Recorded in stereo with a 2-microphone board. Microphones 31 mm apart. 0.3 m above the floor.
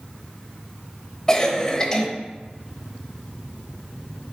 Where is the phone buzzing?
No phone buzzing in this recording.